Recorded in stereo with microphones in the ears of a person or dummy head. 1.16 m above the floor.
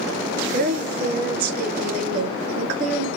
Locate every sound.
0.5 s a woman speaking: 55° right (ahead or behind), 3 m